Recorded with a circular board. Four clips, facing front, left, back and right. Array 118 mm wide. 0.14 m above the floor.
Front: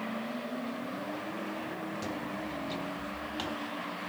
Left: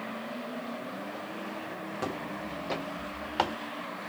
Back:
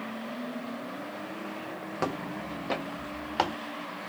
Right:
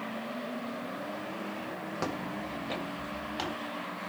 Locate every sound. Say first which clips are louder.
2.0 s footsteps: even, back 3 dB; 160° right, 1.7 m; by 3.6 s 140° left, 2.5 m